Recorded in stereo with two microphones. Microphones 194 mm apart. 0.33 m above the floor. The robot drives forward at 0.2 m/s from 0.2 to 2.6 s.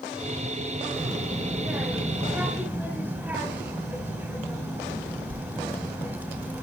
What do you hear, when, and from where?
0.9 s a child speaking: 5° right (ahead or behind), 0.9 m; by 6.6 s 10° right (ahead or behind), 0.7 m